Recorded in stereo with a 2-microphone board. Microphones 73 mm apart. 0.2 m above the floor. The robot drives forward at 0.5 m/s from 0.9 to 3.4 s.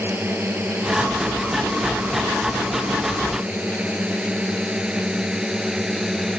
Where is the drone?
30° right (ahead or behind); by 6.4 s 5° right (ahead or behind).